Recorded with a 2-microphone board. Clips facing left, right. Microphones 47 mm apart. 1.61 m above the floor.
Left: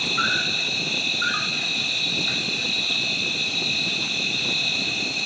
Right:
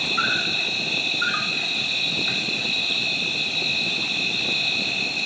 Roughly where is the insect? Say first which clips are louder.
Even; centre.